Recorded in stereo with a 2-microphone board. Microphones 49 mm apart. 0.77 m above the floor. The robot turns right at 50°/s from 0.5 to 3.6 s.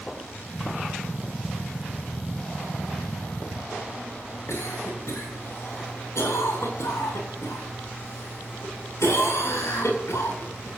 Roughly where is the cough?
Left.